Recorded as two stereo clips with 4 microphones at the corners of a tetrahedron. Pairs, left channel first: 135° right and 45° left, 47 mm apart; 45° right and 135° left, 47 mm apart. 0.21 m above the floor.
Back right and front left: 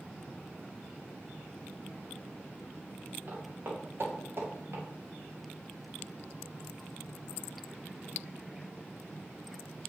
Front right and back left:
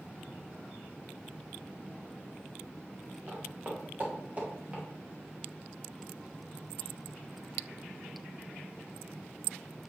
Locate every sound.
3.3 s footsteps: 95° left, 2.5 m; by 4.8 s 75° left, 3 m